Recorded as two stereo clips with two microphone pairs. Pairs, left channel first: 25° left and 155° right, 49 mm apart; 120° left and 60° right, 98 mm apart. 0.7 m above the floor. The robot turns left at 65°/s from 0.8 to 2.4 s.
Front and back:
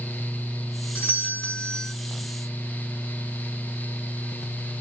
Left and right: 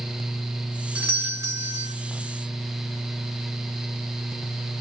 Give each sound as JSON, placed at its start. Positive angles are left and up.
{"t": 0.9, "sound": "a doorbell", "azimuth_deg": 0, "distance_m": 1.1}